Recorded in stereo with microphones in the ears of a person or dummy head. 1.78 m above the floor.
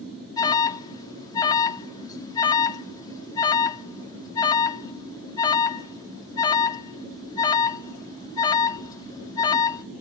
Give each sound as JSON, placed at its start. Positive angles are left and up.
{"t": 0.4, "sound": "an alarm", "side_deg": 20, "distance_m": 0.7}